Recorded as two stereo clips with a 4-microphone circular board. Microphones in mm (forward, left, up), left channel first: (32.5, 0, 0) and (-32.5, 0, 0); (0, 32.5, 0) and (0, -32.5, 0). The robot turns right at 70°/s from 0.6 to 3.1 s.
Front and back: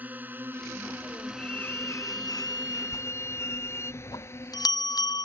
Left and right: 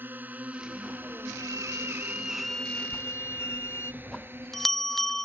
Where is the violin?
75° right; by 3.9 s 45° left.